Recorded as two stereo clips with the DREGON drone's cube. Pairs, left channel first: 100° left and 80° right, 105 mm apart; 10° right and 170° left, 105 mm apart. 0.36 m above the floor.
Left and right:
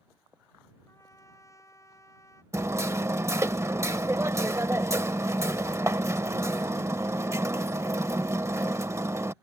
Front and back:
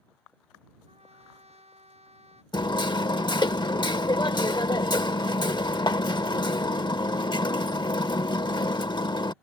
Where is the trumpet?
160° left.